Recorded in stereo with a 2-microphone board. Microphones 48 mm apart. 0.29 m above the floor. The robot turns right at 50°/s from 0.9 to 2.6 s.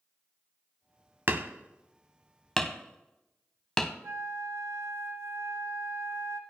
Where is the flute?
75° right (ahead or behind), 1.3 m.